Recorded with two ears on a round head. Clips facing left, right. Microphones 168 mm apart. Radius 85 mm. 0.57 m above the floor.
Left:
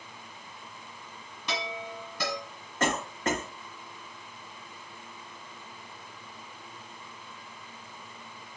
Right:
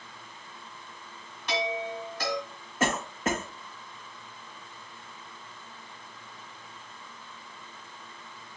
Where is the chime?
70° left (ahead or behind), 2.0 m.